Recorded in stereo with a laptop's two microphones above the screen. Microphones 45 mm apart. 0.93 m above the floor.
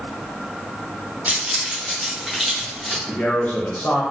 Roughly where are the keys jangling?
Right.